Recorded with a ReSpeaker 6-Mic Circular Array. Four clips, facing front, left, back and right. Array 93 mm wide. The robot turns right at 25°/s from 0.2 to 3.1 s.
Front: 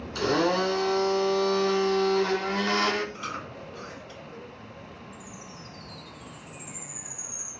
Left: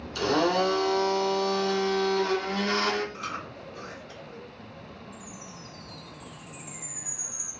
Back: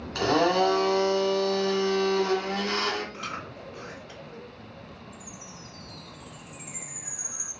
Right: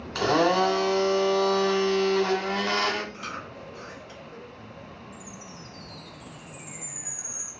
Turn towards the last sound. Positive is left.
turn(degrees=-175)